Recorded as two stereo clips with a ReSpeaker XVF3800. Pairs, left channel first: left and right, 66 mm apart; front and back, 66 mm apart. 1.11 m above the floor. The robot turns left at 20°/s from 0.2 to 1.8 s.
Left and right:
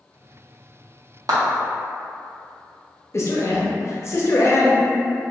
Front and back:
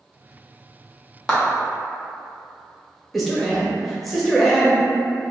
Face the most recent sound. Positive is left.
turn(degrees=90)